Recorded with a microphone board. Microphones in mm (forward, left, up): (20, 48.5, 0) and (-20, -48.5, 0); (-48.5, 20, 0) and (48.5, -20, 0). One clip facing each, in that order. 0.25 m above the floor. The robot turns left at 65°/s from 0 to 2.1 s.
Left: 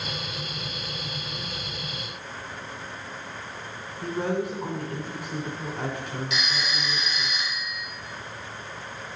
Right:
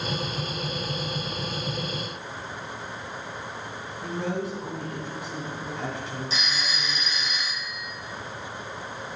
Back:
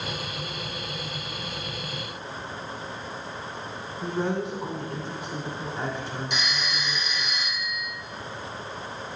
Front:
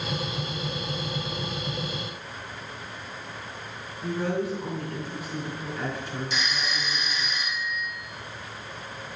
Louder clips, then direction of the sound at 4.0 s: Left 3 dB, even; 120° left.